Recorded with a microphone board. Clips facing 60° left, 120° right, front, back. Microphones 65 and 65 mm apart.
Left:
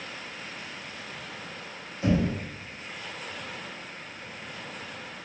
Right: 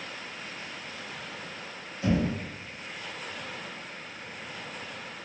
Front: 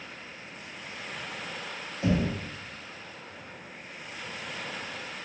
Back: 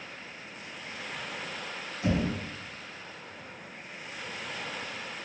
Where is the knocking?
5° right, 1.7 m.